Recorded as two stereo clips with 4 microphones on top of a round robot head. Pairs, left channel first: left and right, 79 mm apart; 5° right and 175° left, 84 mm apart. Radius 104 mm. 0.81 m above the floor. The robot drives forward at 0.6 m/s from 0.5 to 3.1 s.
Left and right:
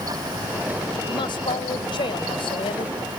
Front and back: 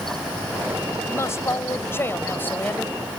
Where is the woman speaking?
55° left; by 3.0 s 70° left.